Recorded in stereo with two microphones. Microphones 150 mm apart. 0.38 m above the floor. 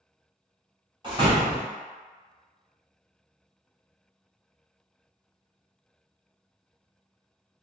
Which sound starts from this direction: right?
A door slam, at 1.0 s.